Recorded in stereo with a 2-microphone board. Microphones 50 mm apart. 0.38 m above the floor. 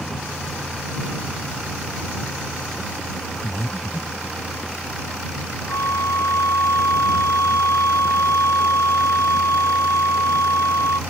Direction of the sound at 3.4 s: 60° left (ahead or behind).